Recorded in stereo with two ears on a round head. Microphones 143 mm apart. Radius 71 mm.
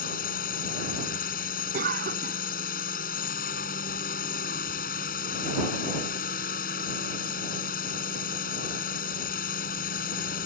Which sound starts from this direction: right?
A cough, at 1.7 s.